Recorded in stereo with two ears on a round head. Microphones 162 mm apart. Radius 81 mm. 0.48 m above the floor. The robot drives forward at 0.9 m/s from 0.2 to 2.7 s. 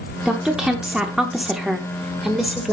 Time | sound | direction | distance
0.2 | a woman speaking | 5° right (ahead or behind) | 1.1 m